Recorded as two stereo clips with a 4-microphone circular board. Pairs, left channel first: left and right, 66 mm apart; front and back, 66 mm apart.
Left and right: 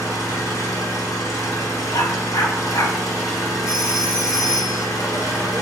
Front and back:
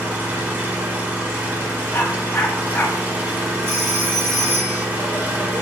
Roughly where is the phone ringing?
Behind.